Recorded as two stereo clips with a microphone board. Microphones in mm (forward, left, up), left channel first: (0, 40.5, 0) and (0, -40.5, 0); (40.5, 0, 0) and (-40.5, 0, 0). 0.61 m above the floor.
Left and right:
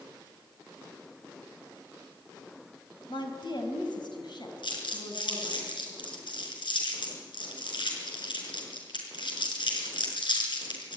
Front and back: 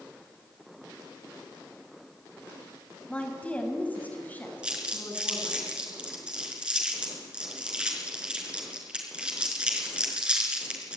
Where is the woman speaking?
75° left, 4 m; by 5.6 s 65° left, 7 m.